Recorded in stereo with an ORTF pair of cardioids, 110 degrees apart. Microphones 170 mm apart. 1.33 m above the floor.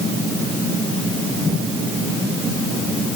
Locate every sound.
Only background noise.